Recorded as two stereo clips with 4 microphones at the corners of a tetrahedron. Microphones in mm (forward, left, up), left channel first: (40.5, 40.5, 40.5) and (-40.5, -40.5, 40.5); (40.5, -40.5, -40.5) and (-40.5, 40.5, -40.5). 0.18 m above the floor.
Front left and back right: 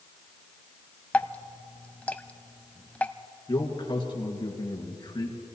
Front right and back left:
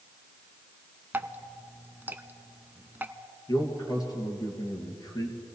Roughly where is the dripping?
Left.